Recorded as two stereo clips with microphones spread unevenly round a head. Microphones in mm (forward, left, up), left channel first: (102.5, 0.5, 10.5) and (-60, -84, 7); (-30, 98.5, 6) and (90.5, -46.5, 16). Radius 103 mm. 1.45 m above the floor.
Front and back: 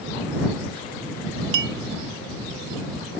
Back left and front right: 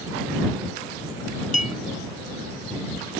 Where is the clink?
175° right.